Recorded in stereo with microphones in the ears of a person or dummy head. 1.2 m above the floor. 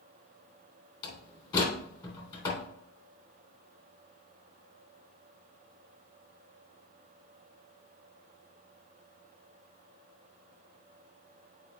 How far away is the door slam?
About 3 m.